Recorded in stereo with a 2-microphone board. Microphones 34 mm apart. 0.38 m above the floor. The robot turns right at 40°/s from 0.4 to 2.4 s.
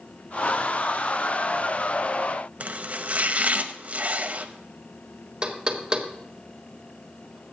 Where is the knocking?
25° right (ahead or behind), 1.3 m.